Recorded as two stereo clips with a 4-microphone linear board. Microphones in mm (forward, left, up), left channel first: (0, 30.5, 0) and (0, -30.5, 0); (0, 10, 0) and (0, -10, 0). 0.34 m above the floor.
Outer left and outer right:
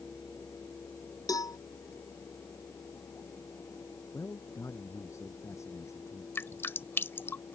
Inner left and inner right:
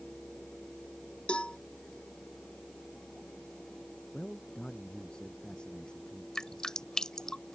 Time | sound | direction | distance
1.3 | a cowbell | 80° left | ?
4.1 | a man speaking | 55° left (ahead or behind) | ?
6.3 | dripping | 40° left (ahead or behind) | ?